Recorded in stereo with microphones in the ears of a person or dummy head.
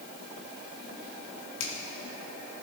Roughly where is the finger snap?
Left.